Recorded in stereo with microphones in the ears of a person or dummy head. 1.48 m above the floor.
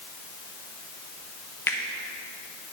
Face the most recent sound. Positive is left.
turn(degrees=15)  # may be behind; listen again after turning